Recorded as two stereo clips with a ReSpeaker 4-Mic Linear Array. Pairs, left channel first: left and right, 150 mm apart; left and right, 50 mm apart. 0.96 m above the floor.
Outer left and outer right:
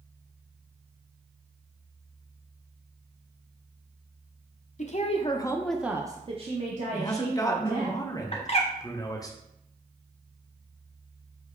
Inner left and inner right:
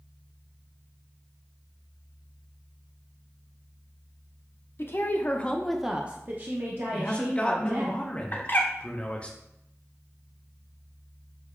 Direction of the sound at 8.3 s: 40° left (ahead or behind).